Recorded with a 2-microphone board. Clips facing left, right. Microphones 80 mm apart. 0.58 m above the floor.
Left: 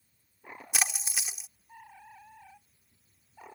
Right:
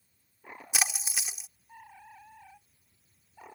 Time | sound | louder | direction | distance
0.7 | a splash | even | 5° right (ahead or behind) | ?